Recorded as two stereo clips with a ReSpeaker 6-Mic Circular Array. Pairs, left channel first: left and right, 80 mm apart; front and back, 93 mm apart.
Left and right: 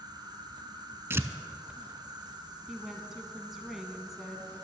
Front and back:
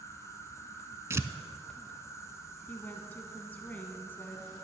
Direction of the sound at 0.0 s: 60° right.